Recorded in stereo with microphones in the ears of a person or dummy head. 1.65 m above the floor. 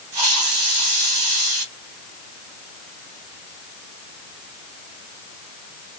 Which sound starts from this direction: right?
A hiss, at 0.1 s.